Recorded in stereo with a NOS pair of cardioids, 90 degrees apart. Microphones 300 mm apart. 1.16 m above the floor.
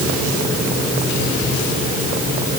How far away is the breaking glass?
No breaking glass in this recording.